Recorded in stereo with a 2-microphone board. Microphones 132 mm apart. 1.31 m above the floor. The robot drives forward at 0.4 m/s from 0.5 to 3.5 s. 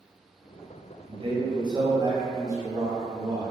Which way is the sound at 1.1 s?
45° right (ahead or behind).